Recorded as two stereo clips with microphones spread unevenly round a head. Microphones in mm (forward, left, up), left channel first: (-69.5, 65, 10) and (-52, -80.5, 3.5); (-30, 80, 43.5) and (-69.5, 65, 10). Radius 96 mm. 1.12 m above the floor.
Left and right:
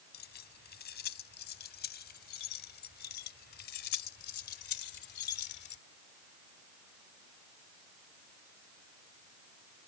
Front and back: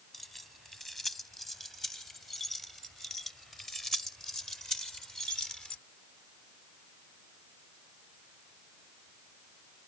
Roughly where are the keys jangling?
Left.